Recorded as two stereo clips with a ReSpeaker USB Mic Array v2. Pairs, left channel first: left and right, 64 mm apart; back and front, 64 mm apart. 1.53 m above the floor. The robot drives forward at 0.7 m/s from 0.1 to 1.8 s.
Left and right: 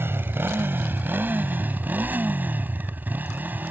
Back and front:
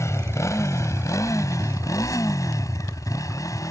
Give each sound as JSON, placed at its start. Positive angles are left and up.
{"t": 0.0, "sound": "a motorcycle", "azimuth_deg": -140}